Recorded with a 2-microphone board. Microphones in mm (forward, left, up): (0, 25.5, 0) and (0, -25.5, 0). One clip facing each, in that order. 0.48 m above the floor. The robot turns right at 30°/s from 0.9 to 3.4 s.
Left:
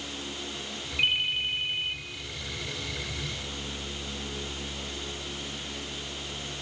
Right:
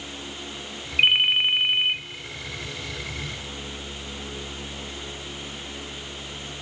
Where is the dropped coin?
No dropped coin in this recording.